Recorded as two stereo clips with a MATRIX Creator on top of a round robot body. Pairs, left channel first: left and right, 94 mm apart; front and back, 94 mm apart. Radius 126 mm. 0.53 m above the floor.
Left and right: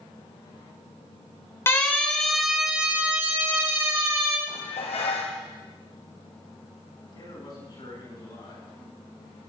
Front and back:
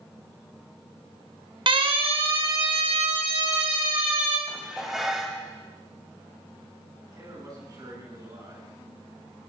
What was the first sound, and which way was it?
A siren, 155° left.